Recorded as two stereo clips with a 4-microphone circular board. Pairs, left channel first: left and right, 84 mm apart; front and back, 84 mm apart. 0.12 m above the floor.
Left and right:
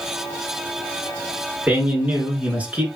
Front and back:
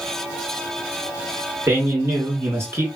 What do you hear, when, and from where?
1.7 s a man speaking: 155° right, 1.3 m